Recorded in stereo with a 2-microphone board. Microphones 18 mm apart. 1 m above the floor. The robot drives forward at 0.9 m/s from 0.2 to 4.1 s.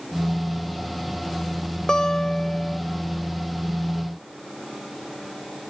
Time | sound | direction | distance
1.9 | a guitar | 55° left (ahead or behind) | ?